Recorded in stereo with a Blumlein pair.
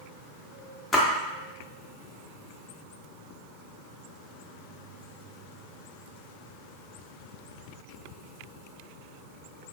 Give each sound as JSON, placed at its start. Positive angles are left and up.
{"t": 0.9, "sound": "a splash", "azimuth_deg": 15, "distance_m": 0.7}